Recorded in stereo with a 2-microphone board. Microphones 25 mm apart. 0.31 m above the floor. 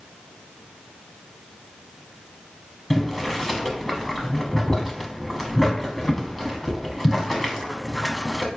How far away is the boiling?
About 0.7 m.